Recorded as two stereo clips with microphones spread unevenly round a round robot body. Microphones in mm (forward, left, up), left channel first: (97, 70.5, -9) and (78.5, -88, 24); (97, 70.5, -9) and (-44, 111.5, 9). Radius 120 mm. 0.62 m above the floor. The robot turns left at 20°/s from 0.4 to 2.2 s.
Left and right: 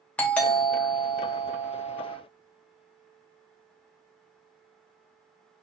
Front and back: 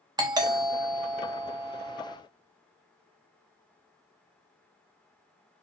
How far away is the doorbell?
About 1.0 m.